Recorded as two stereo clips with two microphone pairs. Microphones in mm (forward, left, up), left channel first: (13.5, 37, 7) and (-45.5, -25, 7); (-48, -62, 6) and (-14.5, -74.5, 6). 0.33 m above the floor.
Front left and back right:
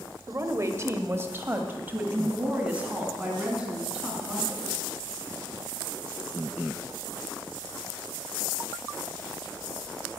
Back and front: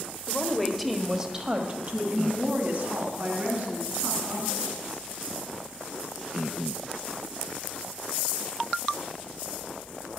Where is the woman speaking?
145° right, 1.3 m; by 4.8 s 50° right, 4 m.